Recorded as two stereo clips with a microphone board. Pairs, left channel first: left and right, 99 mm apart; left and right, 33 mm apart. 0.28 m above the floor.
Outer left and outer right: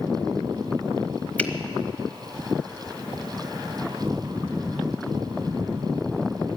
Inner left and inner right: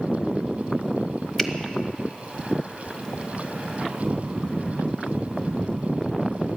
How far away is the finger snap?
About 1.0 m.